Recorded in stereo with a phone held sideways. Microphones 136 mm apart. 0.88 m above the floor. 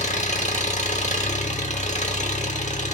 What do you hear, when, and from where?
0.0 s an engine running: 60° left (ahead or behind), 0.9 m